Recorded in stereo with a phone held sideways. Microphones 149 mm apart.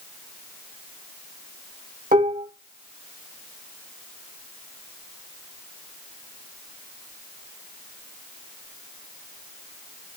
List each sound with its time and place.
2.1 s dishes clattering: 70° right (ahead or behind), 1.3 m